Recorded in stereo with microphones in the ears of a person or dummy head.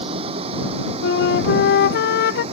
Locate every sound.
0.0 s a vehicle: 40° right (ahead or behind); by 2.5 s 45° right (ahead or behind)
1.0 s a flute: 65° left (ahead or behind)